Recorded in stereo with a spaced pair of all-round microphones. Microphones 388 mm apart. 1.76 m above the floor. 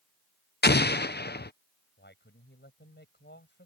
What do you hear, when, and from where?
0.6 s an explosion: 25° left (ahead or behind)
2.0 s a man speaking: 25° left (ahead or behind)